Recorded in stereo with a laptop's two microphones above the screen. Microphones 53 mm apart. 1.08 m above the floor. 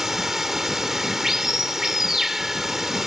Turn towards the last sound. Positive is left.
turn(degrees=-5)  # may be behind; listen again after turning